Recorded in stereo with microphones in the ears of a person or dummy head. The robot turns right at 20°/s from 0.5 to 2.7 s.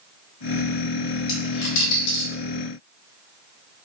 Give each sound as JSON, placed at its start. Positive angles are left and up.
{"t": 1.3, "sound": "a dropped coin", "side_deg": 60, "distance_m": 1.3}